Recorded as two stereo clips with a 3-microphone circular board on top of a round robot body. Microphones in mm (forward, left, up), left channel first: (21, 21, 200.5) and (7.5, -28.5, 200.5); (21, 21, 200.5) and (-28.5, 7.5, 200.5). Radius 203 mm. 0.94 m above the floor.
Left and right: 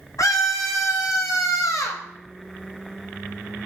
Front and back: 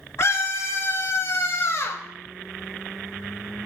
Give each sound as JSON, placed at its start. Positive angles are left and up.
{"t": 0.2, "sound": "a scream", "azimuth_deg": 55, "distance_m": 1.3}